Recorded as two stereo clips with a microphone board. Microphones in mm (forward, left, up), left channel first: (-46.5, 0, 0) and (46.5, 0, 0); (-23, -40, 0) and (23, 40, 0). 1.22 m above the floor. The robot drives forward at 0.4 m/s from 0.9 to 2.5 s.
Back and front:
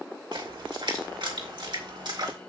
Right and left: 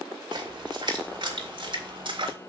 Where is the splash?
25° left, 2.5 m; by 2.4 s 35° left, 1.9 m.